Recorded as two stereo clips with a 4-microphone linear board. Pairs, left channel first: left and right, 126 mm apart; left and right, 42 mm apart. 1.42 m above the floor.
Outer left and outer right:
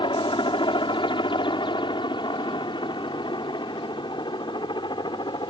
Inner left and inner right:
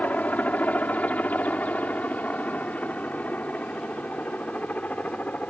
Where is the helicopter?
40° left (ahead or behind); by 5.5 s 35° left (ahead or behind).